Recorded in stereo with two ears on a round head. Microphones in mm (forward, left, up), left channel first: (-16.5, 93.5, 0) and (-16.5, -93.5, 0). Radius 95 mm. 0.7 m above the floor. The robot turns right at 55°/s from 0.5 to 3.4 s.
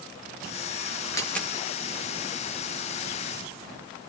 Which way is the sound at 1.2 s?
15° left (ahead or behind).